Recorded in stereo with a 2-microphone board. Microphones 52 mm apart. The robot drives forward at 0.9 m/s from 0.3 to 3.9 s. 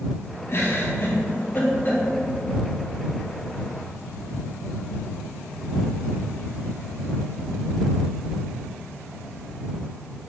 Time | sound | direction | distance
0.5 | a giggle | 55° left (ahead or behind) | 2.5 m